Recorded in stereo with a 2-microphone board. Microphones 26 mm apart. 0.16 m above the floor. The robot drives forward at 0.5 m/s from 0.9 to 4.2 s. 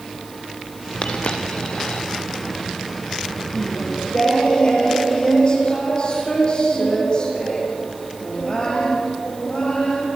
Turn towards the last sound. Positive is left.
turn(degrees=40)  # may be behind; listen again after turning